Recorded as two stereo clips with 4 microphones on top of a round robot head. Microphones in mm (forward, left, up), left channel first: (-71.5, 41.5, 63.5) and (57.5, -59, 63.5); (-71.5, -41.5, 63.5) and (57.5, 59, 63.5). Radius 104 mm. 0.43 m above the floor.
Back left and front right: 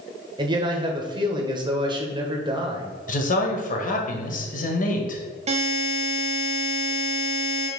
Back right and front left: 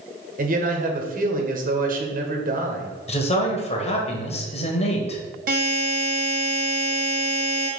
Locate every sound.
0.4 s a man speaking: 20° left, 1.6 m
3.1 s a man speaking: 170° left, 1.9 m
5.5 s a buzzer: 10° left, 2 m